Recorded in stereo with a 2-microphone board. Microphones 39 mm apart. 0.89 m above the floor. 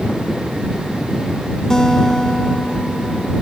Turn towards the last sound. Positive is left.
turn(degrees=15)  # may be behind; listen again after turning